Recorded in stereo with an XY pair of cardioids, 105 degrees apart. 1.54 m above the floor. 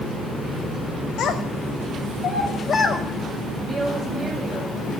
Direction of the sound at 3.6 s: 30° right.